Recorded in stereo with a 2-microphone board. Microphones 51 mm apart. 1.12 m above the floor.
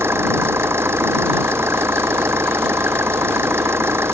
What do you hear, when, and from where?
0.0 s an engine running: 60° right (ahead or behind)